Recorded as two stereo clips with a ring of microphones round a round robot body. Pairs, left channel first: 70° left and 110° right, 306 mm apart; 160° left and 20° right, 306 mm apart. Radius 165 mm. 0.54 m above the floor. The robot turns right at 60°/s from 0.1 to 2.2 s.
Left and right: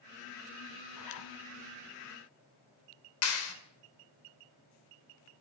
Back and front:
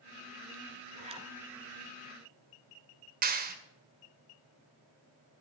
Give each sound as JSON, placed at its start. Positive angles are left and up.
{"t": 0.9, "sound": "a zipper", "azimuth_deg": 40, "distance_m": 1.8}
{"t": 3.2, "sound": "a clap", "azimuth_deg": 35, "distance_m": 2.5}